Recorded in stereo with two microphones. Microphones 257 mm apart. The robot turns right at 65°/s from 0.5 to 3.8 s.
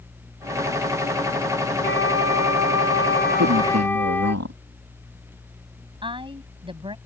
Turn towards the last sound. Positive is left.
turn(degrees=-20)  # may be behind; listen again after turning